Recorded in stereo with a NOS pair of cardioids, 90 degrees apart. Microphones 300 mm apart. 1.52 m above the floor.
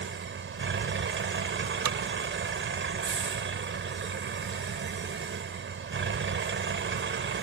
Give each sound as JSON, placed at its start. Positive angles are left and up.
{"t": 0.0, "sound": "a vehicle", "azimuth_deg": -40}
{"t": 1.9, "sound": "hammering", "azimuth_deg": -70}